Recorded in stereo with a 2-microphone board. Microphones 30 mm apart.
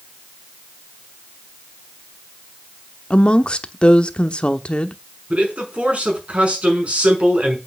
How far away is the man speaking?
About 5.5 m.